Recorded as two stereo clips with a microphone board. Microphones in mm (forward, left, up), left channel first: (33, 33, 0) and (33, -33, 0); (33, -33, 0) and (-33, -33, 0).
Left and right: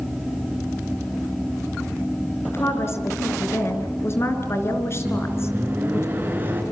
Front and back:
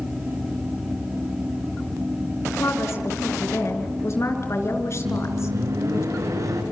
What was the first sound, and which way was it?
A woman speaking, 45° left.